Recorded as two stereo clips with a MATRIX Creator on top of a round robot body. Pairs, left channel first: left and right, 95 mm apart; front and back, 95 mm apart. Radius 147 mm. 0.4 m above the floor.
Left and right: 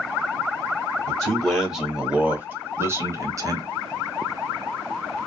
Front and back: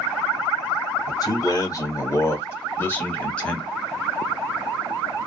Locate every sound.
1.1 s a man speaking: 10° left, 1.6 m; by 3.7 s 75° right, 1.6 m